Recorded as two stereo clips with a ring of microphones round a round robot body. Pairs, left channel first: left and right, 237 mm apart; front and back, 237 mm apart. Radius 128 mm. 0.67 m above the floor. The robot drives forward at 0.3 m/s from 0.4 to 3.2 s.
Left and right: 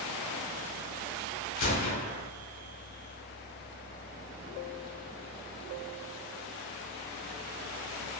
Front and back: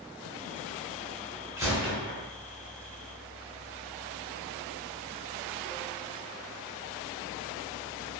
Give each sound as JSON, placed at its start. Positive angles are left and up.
{"t": 1.6, "sound": "a gunshot", "azimuth_deg": 100, "distance_m": 0.7}